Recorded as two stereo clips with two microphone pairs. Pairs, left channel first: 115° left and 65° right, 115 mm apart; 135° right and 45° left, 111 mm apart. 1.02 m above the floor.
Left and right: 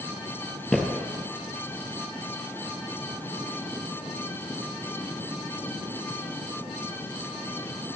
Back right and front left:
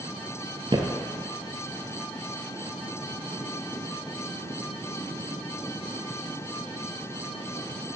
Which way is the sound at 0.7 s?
30° left.